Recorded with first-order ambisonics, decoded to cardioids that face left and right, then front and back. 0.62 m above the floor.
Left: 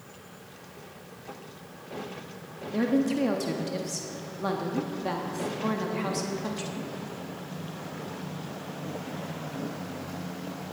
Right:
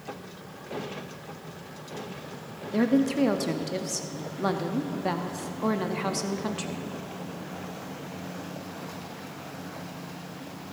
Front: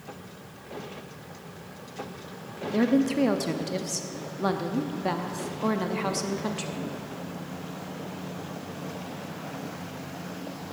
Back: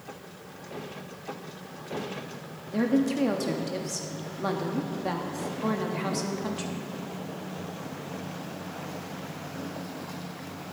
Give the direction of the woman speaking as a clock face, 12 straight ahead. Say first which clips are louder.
Right 2 dB, front 2 dB; 2 o'clock.